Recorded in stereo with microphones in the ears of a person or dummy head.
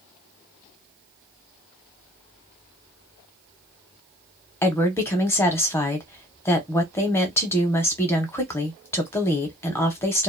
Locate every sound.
4.6 s a woman speaking: 15° left (ahead or behind), 0.7 m